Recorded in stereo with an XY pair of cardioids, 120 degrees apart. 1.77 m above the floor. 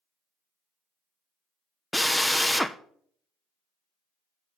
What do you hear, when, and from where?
1.9 s a drill: 5° left, 0.6 m